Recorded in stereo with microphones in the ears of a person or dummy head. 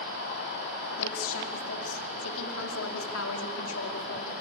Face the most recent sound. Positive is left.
turn(degrees=80)